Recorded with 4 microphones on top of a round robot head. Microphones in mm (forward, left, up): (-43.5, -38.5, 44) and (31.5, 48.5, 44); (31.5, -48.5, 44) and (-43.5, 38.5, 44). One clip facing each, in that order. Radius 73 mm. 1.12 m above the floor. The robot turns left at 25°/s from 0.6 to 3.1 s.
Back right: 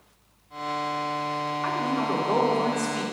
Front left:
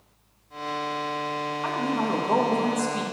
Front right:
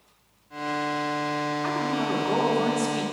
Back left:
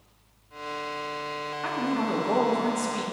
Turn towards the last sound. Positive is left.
turn(degrees=80)